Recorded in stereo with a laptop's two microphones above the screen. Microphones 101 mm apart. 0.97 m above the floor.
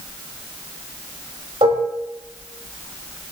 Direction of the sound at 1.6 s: 65° right (ahead or behind).